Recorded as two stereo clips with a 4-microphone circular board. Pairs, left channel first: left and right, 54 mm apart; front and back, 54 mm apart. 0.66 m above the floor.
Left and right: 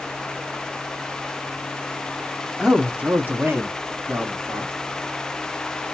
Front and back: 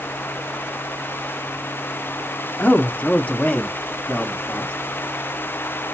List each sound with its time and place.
2.6 s a man speaking: 10° right, 0.5 m; by 4.7 s 70° right, 1.4 m